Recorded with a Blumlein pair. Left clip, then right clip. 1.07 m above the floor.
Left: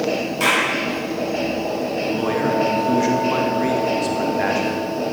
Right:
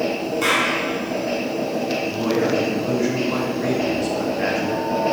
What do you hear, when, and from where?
0.4 s a clap: 45° left, 5.5 m
2.1 s a man speaking: 15° left, 2 m